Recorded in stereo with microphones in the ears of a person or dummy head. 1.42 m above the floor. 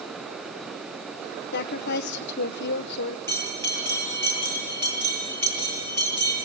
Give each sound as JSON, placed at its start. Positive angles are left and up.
{"t": 1.5, "sound": "a woman speaking", "side_deg": 60, "distance_m": 0.9}
{"t": 3.3, "sound": "a bell", "side_deg": 15, "distance_m": 9.5}